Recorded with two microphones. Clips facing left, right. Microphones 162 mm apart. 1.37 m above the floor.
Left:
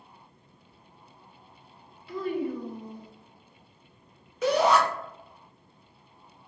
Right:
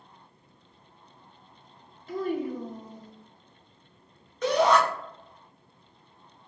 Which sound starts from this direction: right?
A child speaking, at 2.1 s.